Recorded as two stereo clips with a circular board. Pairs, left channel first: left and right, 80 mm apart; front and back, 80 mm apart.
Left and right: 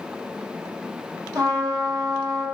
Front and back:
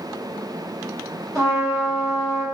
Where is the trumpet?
130° right, 1.0 m.